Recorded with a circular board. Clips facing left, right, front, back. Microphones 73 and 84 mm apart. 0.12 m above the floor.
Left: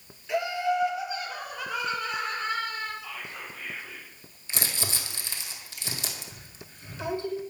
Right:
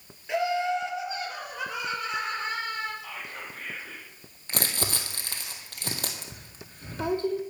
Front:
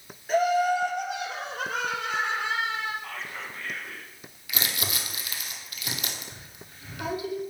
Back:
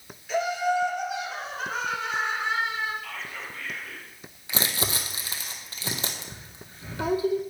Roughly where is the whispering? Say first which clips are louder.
Even, even; ahead right.